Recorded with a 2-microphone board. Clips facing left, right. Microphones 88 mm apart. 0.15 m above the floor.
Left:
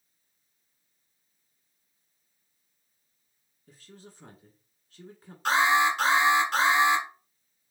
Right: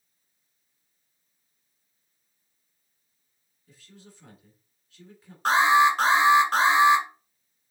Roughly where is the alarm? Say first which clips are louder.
Right 4 dB; right.